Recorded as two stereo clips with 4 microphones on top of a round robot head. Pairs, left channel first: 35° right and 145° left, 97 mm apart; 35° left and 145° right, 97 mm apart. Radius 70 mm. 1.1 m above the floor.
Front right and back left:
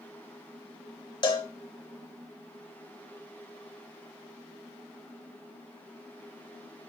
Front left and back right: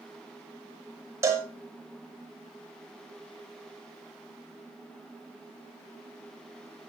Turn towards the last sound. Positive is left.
turn(degrees=-80)